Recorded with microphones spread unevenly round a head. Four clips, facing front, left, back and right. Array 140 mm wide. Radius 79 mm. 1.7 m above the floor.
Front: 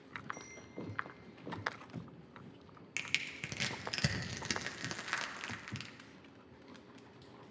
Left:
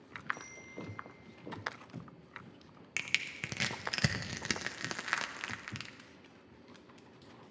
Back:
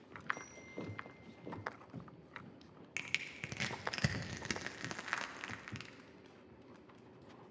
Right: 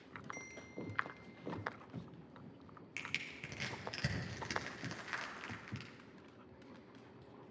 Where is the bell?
115° right, 2.5 m.